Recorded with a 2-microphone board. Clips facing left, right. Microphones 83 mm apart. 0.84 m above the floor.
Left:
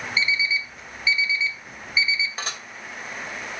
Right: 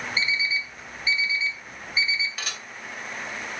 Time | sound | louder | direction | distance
0.2 | an alarm clock | left 3 dB | 40° right (ahead or behind) | 1.8 m
2.4 | dishes clattering | left 3 dB | 30° left (ahead or behind) | 2.5 m